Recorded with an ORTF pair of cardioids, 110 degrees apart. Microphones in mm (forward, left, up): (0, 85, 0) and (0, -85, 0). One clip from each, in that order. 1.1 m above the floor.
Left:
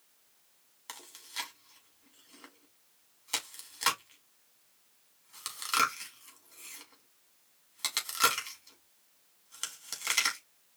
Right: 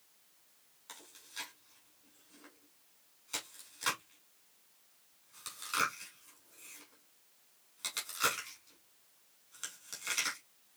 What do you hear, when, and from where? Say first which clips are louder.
0.9 s chewing: left 6 dB; 55° left, 2.5 m